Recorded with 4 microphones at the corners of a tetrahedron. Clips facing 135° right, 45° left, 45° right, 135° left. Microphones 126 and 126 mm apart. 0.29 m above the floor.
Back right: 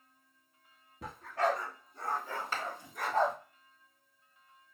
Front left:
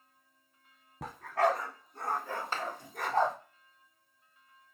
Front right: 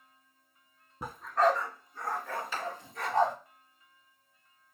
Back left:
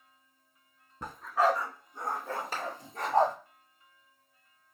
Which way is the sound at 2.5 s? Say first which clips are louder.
Front left 2 dB, front right 1 dB; 100° left.